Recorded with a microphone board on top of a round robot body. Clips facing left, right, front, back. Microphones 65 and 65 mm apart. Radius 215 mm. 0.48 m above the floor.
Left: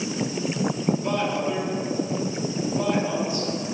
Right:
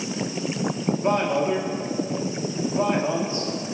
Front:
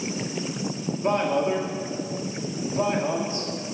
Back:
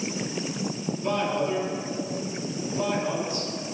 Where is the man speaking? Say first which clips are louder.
Right 3 dB, front 4 dB; 45° right, 1.6 m.